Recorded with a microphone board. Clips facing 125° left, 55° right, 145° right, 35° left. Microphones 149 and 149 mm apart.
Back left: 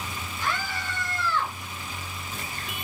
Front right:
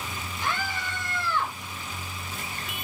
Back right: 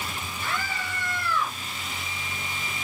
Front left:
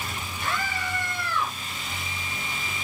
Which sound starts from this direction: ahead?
A scream, at 0.4 s.